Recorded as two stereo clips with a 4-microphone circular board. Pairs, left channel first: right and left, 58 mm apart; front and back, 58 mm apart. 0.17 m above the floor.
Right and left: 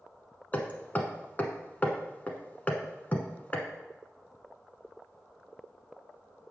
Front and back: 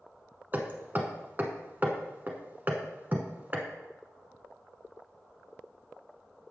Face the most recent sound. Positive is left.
turn(degrees=-140)